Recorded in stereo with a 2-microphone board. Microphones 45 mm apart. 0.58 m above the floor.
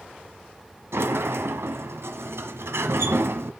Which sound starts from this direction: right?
A sliding door, at 0.9 s.